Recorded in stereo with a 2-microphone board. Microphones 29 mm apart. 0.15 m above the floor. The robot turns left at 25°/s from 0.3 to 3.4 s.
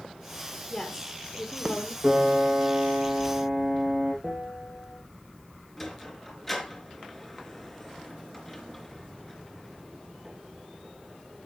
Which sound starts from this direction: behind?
A woman speaking, at 0.7 s.